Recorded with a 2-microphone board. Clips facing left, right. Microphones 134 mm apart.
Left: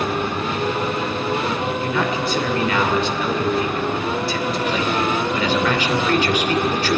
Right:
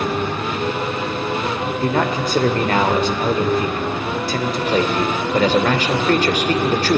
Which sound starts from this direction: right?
A man speaking, at 1.8 s.